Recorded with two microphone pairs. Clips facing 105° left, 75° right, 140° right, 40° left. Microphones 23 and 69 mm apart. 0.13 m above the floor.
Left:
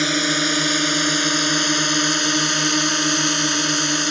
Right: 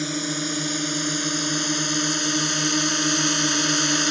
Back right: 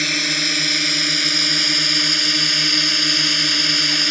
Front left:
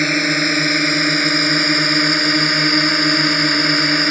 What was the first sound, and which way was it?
A drone, 80° left.